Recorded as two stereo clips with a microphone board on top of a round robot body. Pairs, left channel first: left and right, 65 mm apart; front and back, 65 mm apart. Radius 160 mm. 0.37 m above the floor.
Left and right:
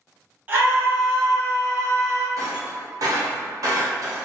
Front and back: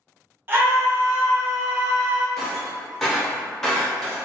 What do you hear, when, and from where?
0.5 s a scream: 140° right, 1.4 m; by 2.3 s 105° right, 2.0 m
2.4 s breaking glass: 85° right, 1.1 m